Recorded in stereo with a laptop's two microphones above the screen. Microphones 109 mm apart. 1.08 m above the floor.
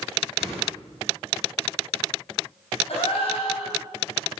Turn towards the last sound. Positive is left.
turn(degrees=75)  # may be behind; listen again after turning